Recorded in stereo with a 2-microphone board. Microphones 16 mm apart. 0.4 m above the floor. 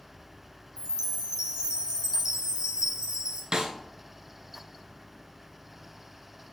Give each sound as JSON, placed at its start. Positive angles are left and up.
{"t": 0.8, "sound": "a chime", "side_deg": -65, "distance_m": 1.5}
{"t": 3.5, "sound": "a snare drum", "side_deg": -50, "distance_m": 1.1}